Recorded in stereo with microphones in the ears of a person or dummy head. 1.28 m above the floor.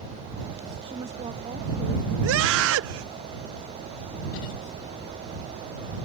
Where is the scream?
70° right (ahead or behind).